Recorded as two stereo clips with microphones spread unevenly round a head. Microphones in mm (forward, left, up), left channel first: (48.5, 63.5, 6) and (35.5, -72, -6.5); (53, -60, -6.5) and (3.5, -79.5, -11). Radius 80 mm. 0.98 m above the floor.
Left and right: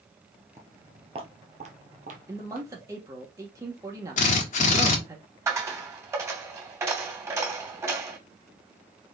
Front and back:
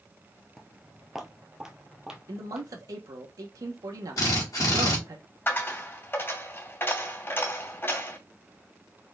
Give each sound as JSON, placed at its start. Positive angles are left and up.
{"t": 0.6, "sound": "footsteps", "azimuth_deg": -40, "distance_m": 1.0}
{"t": 2.3, "sound": "a man speaking", "azimuth_deg": -165, "distance_m": 1.1}
{"t": 4.2, "sound": "a drill", "azimuth_deg": 65, "distance_m": 1.6}
{"t": 5.5, "sound": "a dropped coin", "azimuth_deg": -25, "distance_m": 2.5}